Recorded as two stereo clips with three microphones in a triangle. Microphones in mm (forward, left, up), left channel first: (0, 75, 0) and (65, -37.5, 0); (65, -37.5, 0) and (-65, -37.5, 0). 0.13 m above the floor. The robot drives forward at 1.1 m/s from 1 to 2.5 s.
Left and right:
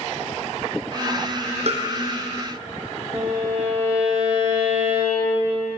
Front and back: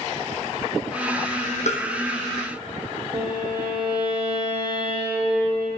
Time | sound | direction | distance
1.7 | tapping | 25° right | 1.5 m
3.1 | a violin | 135° right | 2.5 m